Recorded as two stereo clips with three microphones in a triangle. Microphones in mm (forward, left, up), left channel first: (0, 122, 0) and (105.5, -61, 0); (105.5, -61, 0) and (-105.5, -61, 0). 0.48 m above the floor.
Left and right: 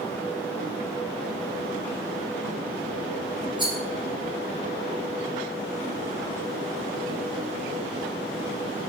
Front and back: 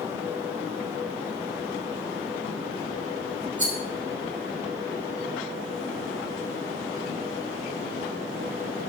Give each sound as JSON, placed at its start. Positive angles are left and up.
{"t": 3.6, "sound": "a rattle", "azimuth_deg": -125, "distance_m": 0.7}